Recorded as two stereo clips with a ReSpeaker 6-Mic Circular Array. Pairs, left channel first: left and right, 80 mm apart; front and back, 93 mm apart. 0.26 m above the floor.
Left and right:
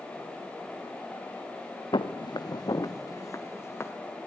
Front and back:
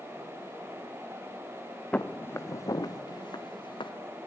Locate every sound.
1.9 s footsteps: 75° left, 1.8 m; by 3.9 s 30° left, 3 m